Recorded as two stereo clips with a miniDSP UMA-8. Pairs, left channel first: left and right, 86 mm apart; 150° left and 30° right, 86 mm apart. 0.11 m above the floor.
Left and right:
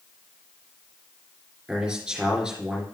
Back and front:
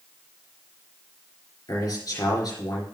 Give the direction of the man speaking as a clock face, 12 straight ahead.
6 o'clock.